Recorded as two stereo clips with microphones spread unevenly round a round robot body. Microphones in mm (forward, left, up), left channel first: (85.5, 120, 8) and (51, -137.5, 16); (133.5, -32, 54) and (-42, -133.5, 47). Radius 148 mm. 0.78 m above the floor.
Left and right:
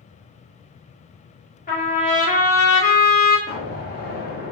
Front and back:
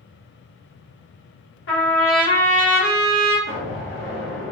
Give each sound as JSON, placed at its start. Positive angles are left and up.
{"t": 1.7, "sound": "a trumpet", "azimuth_deg": 25, "distance_m": 1.4}
{"t": 3.5, "sound": "an explosion", "azimuth_deg": 30, "distance_m": 1.3}